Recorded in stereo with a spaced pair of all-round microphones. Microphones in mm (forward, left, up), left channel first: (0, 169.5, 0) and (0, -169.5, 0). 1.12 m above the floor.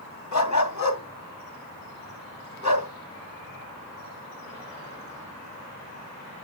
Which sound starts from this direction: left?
A dog barking, at 0.3 s.